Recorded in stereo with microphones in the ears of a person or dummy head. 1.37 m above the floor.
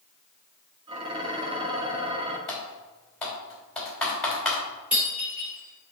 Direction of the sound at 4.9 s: 15° right (ahead or behind).